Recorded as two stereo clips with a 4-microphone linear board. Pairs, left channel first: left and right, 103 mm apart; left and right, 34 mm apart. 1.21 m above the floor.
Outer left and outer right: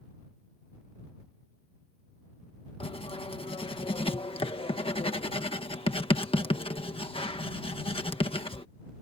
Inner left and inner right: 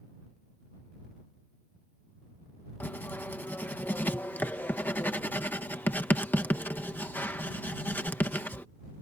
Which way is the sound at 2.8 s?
65° left (ahead or behind).